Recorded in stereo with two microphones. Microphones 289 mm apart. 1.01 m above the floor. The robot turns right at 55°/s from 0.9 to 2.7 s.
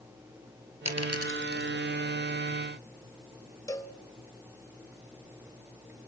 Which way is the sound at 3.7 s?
10° left (ahead or behind).